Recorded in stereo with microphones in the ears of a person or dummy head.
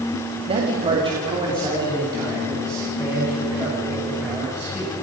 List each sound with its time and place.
0.5 s a man speaking: 35° right (ahead or behind), 1.9 m; by 4.9 s 15° right (ahead or behind), 6.5 m